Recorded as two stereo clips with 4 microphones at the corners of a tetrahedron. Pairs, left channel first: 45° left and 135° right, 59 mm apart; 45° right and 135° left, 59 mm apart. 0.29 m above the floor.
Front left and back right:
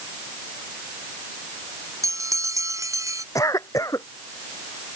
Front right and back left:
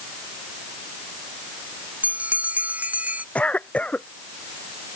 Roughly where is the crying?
I don't hear crying.